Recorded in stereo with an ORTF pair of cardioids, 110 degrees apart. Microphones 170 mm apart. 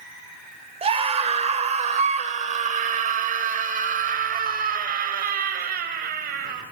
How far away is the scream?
About 4.5 m.